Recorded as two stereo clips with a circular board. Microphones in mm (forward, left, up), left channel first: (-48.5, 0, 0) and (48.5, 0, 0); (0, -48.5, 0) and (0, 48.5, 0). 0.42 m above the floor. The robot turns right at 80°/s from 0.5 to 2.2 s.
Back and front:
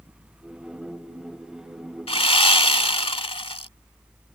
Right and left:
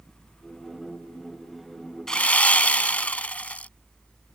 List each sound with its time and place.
2.1 s sawing: 175° right; by 3.7 s 165° right